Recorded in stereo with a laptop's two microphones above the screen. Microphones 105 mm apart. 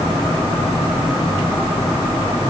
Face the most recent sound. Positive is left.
No sound to turn to.